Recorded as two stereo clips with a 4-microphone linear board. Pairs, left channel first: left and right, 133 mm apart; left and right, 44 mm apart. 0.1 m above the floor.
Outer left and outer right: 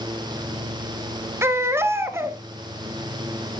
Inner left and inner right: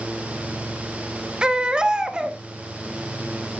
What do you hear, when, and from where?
1.4 s a baby crying: 20° right (ahead or behind), 1.1 m